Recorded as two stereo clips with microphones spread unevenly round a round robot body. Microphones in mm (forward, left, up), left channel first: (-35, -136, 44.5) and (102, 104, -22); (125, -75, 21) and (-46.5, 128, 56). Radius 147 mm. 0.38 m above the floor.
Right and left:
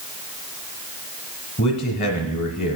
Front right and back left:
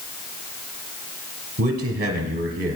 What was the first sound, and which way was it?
A man speaking, straight behind.